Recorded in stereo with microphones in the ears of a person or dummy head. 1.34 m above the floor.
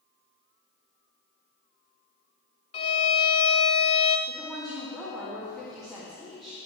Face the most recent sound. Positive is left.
turn(degrees=5)  # may be behind; listen again after turning